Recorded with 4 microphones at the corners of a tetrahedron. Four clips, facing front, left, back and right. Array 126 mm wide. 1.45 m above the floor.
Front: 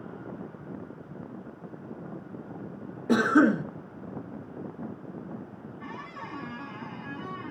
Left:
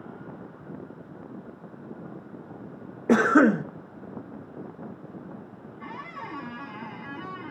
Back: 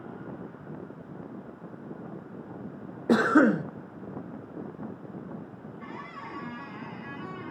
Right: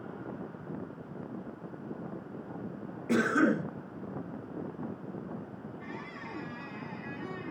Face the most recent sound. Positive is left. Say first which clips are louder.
# left 8 dB, front 1 dB
turn(degrees=95)